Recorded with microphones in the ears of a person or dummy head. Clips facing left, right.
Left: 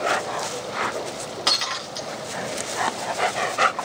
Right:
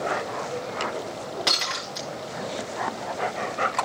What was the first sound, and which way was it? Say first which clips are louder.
Breaking glass: left 1 dB; centre (ahead or behind).